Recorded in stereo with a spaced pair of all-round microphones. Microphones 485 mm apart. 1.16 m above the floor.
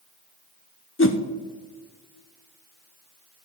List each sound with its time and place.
1.0 s a whoosh: 25° left (ahead or behind), 0.6 m